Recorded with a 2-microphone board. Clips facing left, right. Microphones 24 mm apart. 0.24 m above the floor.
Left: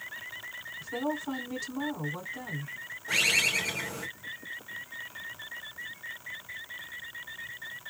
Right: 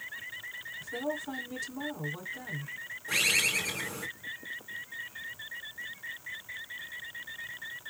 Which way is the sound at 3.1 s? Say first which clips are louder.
Left 2 dB; 25° left (ahead or behind).